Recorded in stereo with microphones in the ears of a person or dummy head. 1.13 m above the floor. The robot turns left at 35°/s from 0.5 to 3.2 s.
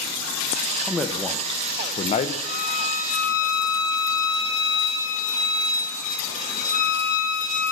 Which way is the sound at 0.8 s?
170° right.